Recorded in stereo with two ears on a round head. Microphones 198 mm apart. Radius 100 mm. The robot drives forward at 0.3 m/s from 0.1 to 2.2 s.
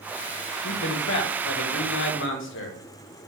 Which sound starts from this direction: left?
A man speaking, at 0.6 s.